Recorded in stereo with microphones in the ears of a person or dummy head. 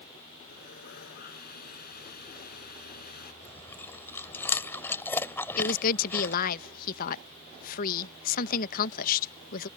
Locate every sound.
0.5 s sawing: 55° left (ahead or behind)
3.4 s chewing: 15° left (ahead or behind)
5.6 s a woman speaking: 55° left (ahead or behind)